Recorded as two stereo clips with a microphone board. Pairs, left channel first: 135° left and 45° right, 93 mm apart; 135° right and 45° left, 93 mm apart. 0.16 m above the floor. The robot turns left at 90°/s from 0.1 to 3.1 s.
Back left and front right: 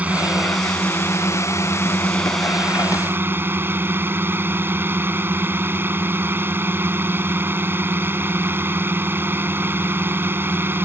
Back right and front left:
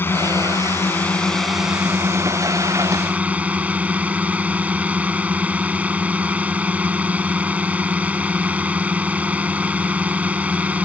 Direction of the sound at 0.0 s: 100° right.